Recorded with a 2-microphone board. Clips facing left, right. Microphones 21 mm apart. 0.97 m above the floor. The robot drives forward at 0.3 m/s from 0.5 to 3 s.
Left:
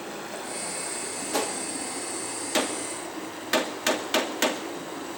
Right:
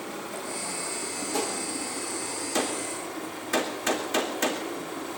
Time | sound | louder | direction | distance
0.0 | running water | even | 30° left (ahead or behind) | 4.5 m
1.3 | a gunshot | left 2 dB | 65° left (ahead or behind) | 2 m